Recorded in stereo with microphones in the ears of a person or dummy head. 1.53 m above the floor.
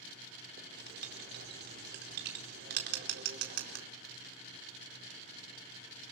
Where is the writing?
60° right (ahead or behind), 4.5 m.